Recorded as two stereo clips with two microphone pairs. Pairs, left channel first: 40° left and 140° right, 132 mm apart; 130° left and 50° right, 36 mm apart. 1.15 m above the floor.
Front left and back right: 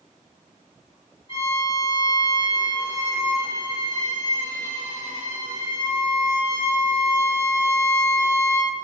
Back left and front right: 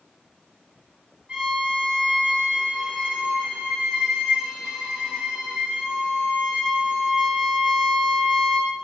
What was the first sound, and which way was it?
A violin, straight ahead.